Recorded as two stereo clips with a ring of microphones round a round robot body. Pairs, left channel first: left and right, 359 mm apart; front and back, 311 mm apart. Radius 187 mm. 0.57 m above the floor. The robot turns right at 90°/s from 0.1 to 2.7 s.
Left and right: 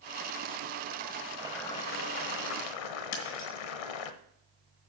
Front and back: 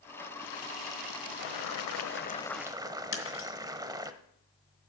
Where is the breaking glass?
45° left, 2.5 m.